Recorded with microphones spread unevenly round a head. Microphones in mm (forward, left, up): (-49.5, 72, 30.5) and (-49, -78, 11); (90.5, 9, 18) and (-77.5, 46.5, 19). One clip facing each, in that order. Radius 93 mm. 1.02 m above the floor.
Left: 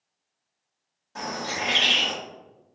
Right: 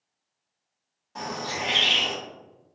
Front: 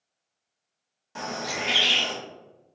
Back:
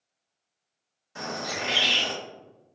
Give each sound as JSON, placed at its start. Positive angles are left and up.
{"t": 1.1, "sound": "a bird", "azimuth_deg": 10, "distance_m": 1.5}